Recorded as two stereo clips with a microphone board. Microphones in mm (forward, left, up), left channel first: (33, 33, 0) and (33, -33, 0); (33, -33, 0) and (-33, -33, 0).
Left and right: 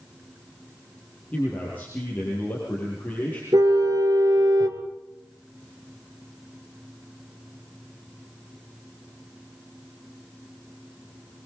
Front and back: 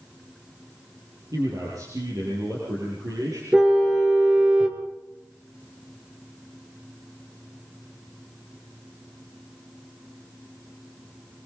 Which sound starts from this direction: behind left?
A man speaking, at 1.3 s.